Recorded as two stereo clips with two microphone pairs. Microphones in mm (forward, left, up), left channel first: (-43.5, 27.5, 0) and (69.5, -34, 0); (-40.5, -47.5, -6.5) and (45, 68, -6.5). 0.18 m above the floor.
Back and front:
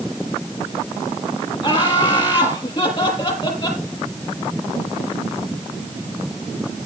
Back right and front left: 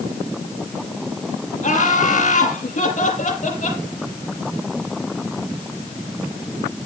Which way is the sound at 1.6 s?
160° right.